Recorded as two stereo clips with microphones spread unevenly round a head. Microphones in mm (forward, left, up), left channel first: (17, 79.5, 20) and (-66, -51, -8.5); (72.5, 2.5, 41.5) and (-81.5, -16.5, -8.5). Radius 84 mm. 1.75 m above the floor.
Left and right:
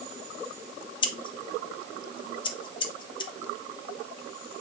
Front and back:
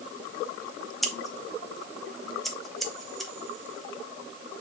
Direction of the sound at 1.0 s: 75° left.